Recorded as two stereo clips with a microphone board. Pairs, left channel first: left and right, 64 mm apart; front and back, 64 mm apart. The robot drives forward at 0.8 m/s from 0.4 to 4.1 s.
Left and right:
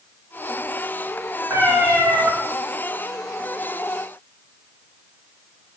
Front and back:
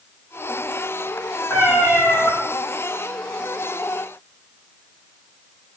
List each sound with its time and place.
1.5 s a cat meowing: 40° right, 3.5 m; by 2.3 s 45° right, 3 m